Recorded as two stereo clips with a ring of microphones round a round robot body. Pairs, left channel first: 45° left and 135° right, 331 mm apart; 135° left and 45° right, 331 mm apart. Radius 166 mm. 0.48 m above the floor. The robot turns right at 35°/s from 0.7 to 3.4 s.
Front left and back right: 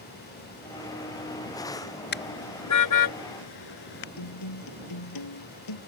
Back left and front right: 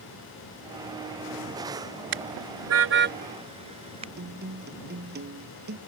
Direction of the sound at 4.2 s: 15° left.